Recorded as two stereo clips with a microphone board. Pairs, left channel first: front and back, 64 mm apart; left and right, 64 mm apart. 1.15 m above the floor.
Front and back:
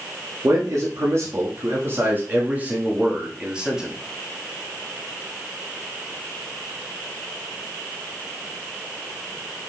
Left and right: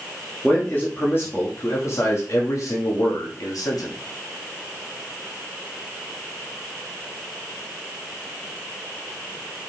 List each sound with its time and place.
0.4 s a man speaking: 150° left, 2.5 m; by 3.9 s 100° left, 2.5 m